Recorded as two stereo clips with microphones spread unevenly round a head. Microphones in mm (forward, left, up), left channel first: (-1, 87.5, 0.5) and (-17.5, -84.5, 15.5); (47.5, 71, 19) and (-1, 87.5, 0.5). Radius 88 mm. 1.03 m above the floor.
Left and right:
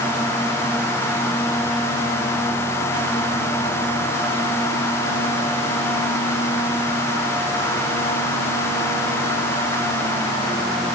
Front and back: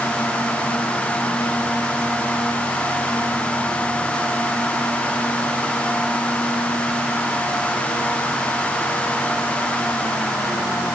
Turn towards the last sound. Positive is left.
No sound to turn to.